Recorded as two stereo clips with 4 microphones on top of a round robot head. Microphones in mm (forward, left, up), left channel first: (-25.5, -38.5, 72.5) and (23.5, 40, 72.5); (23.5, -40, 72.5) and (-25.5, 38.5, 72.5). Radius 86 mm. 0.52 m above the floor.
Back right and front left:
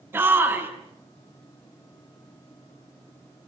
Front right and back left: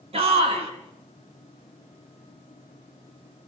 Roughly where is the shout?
Behind left.